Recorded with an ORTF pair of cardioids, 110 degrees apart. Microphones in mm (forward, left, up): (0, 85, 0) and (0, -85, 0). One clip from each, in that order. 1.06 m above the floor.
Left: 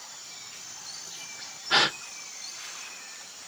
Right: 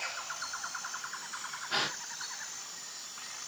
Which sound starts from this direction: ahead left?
A gasp, at 1.7 s.